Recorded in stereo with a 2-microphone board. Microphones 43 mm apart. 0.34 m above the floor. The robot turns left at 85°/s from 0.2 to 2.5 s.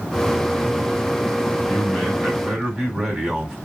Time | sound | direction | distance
1.7 | a man speaking | 50° left | 3 m